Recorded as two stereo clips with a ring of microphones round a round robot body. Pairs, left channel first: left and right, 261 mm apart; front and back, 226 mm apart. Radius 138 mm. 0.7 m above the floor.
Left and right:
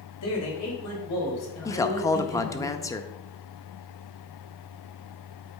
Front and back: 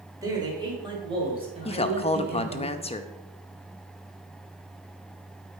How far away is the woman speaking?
About 0.7 m.